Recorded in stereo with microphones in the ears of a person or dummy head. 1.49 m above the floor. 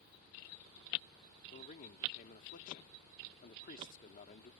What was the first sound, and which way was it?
A man speaking, 45° left (ahead or behind).